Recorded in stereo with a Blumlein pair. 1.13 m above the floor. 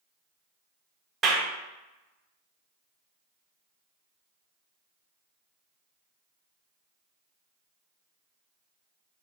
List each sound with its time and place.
1.2 s a clap: 20° right, 0.6 m